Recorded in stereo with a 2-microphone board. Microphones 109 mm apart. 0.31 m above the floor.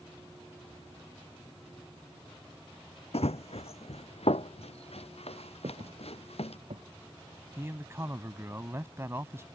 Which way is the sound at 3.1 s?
70° left (ahead or behind).